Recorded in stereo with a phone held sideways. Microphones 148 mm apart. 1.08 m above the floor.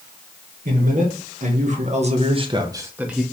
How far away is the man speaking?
About 1.8 m.